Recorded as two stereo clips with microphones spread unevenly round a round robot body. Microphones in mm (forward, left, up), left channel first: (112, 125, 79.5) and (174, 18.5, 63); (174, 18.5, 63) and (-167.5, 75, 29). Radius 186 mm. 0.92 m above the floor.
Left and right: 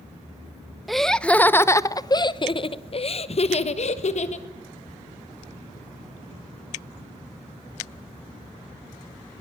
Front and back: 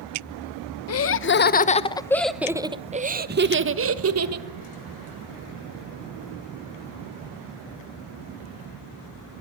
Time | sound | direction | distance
0.9 | laughter | 25° left | 1.1 m